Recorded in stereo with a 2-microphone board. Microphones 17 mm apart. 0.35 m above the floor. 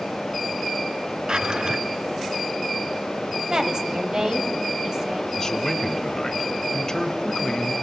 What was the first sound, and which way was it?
A drawer, 55° right (ahead or behind).